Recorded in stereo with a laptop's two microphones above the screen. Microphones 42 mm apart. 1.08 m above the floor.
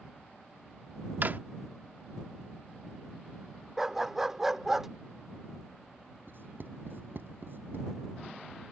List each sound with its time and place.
1.2 s a drawer: 50° right (ahead or behind)
3.8 s a dog barking: 10° right (ahead or behind)
6.3 s writing: 60° right (ahead or behind)